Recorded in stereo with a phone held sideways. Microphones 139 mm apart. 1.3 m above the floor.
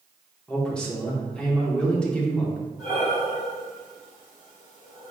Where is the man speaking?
5° left (ahead or behind), 1.2 m.